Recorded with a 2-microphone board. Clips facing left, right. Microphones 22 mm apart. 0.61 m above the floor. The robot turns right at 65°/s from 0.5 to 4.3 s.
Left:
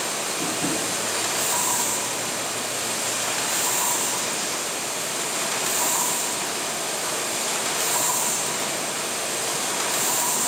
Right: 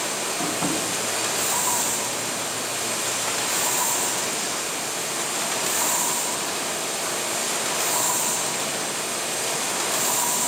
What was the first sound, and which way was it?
Tapping, 50° right (ahead or behind).